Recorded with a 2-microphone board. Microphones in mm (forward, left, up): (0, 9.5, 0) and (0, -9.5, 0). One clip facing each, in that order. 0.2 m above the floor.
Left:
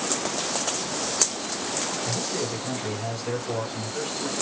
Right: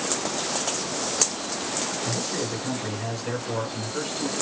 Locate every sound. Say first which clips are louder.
2.0 s a man speaking: even; 35° right (ahead or behind), 1.9 m